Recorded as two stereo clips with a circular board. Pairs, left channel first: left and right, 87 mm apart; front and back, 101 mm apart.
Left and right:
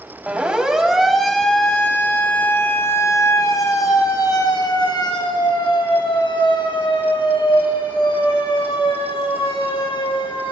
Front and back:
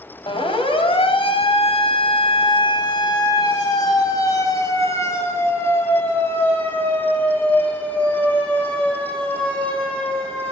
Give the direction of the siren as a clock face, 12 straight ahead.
12 o'clock.